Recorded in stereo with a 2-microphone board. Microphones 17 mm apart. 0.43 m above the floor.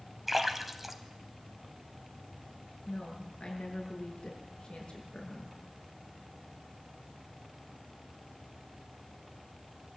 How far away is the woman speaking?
About 7.5 m.